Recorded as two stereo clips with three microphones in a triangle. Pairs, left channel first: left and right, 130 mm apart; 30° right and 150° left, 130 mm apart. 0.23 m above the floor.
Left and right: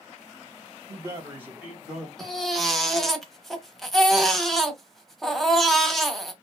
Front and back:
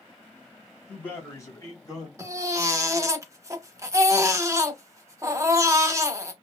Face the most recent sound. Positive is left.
turn(degrees=175)